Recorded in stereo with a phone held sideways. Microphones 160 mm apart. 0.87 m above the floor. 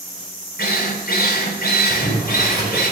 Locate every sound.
0.6 s a drill: 80° left, 3 m
1.9 s boiling: 25° right (ahead or behind), 4.5 m